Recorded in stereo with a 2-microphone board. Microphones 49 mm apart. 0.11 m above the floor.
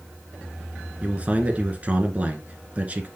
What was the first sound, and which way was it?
A man speaking, 30° right (ahead or behind).